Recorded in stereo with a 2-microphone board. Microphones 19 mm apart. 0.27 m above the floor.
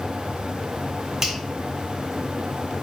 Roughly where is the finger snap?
Right.